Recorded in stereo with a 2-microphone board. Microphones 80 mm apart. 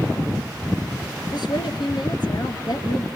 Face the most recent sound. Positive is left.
turn(degrees=65)  # may be behind; listen again after turning